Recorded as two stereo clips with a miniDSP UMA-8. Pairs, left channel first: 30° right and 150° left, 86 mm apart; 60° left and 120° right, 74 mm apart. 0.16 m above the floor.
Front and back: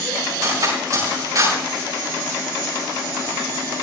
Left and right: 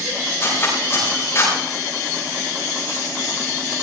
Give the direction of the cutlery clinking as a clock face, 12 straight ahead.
8 o'clock.